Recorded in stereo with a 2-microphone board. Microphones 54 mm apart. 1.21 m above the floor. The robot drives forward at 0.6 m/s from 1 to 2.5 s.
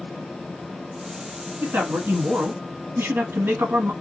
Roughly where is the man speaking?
Right.